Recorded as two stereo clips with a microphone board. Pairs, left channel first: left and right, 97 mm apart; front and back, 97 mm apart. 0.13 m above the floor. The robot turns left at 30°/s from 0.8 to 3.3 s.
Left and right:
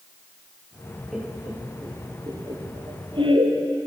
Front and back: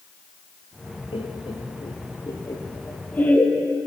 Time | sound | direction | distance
1.1 | laughter | 5° right | 3 m